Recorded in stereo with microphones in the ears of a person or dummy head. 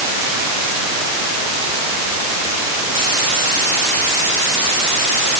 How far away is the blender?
I don't hear a blender.